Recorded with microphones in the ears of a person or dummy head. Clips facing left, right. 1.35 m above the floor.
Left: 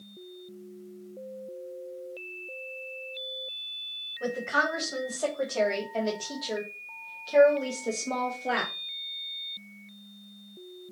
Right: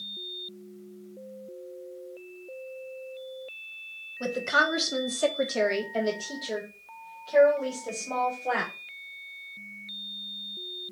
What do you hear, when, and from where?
4.2 s a woman speaking: 60° right (ahead or behind), 1.2 m; by 8.7 s 35° left (ahead or behind), 2 m